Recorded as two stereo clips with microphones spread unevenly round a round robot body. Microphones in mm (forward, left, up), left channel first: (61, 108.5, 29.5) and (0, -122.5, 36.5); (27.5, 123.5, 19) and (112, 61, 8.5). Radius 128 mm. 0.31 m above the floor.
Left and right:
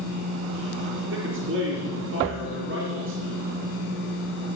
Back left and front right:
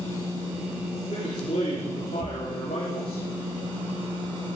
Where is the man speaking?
160° right, 4.5 m.